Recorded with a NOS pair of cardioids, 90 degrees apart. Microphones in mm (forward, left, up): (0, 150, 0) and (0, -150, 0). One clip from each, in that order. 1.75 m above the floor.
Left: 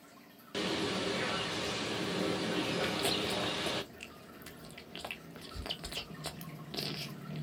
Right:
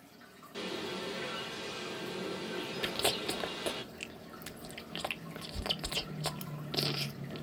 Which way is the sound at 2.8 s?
25° right.